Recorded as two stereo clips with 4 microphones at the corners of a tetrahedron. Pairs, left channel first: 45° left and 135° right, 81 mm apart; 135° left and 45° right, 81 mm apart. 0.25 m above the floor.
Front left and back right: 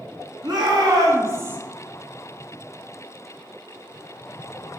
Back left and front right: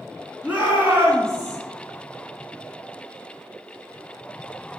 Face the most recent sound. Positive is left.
turn(degrees=-75)